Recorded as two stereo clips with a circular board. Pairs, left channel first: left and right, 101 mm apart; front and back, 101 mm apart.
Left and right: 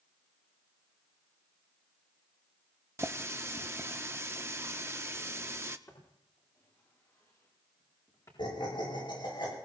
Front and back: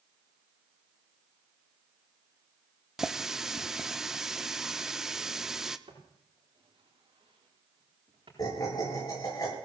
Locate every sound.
3.0 s a running tap: 105° right, 0.6 m
5.9 s footsteps: 155° left, 8 m; by 8.3 s 145° left, 8 m
8.4 s laughter: 50° left, 8.5 m